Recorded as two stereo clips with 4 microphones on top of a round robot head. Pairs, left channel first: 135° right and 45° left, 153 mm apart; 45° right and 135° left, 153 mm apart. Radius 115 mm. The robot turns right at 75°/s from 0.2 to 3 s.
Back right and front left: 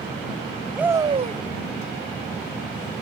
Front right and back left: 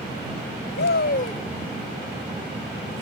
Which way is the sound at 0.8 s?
40° right.